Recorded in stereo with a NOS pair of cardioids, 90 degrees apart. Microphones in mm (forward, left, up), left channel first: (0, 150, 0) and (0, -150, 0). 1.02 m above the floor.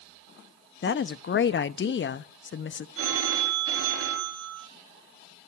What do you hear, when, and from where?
0.8 s a woman speaking: 40° left, 1.0 m
3.0 s a phone ringing: 45° right, 3.5 m